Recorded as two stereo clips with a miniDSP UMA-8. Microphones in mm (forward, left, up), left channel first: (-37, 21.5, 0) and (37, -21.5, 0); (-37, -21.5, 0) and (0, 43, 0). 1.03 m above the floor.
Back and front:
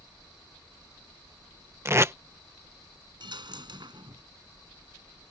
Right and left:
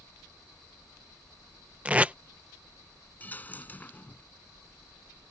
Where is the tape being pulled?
5° left.